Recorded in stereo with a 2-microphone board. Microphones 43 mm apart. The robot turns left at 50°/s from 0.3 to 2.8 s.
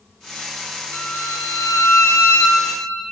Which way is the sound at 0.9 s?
130° left.